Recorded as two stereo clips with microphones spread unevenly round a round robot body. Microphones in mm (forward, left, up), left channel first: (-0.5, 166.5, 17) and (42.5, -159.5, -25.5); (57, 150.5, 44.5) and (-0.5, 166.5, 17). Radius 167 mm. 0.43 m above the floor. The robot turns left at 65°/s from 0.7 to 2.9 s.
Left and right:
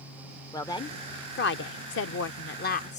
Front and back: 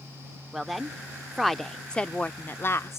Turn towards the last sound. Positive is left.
turn(degrees=35)